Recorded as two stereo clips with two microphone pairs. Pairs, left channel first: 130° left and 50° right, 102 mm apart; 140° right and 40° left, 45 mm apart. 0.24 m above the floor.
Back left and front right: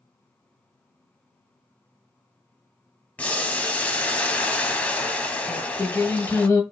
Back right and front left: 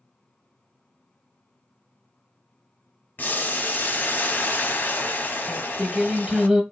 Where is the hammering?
No hammering in this recording.